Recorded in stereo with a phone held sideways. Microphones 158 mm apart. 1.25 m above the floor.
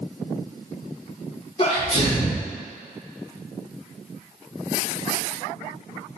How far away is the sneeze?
About 1.0 m.